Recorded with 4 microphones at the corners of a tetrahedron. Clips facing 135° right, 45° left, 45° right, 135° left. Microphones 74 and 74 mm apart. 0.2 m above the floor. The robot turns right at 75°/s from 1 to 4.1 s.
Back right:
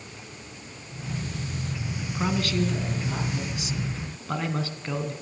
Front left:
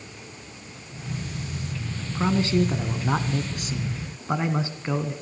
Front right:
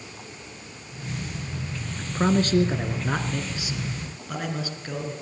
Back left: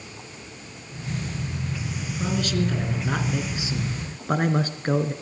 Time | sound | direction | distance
2.0 | a man speaking | 50° right | 2 m